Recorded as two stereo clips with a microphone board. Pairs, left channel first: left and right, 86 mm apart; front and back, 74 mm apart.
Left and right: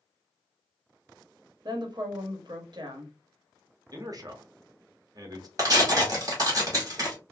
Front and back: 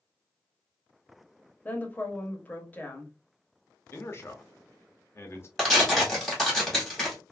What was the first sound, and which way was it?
A woman speaking, 65° right.